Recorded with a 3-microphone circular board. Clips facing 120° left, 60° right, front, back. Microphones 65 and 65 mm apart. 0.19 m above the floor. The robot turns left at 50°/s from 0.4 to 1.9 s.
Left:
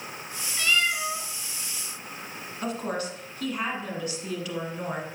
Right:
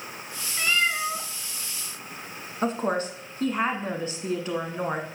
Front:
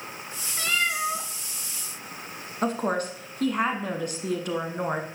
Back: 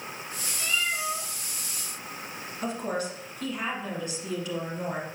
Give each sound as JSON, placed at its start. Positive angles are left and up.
{"t": 0.6, "sound": "a cat meowing", "azimuth_deg": 10, "distance_m": 1.3}
{"t": 2.6, "sound": "a woman speaking", "azimuth_deg": -15, "distance_m": 1.5}